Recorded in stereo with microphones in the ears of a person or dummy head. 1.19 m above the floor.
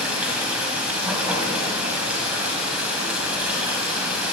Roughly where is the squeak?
I don't hear a squeak.